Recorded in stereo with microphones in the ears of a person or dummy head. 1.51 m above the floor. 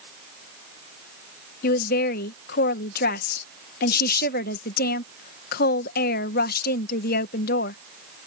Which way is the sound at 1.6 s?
60° left (ahead or behind).